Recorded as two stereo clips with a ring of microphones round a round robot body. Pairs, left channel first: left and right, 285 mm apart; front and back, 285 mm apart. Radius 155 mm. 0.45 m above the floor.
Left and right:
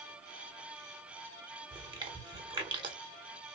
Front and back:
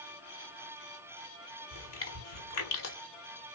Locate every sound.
1.7 s chewing: 20° right, 1.5 m